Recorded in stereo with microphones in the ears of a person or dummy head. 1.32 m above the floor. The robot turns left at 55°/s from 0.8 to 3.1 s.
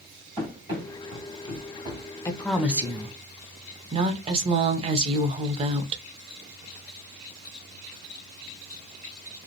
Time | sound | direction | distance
0.4 | running footsteps | 25° right (ahead or behind) | 1.5 m
2.2 | a woman speaking | 15° left | 0.5 m